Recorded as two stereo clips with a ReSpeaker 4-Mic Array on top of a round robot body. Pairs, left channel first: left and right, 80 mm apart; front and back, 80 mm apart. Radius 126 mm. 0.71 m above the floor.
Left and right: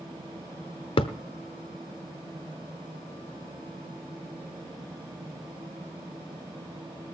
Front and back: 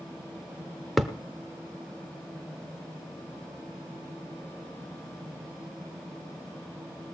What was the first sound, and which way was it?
A thud, 90° left.